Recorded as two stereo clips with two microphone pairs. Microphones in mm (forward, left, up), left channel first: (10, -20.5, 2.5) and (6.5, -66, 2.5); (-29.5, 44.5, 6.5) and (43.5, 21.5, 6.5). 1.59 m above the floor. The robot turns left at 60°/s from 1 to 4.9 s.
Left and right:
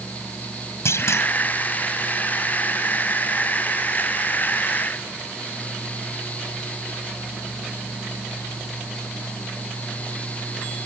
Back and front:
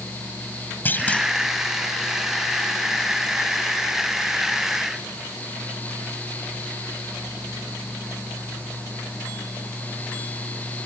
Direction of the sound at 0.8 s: 95° left.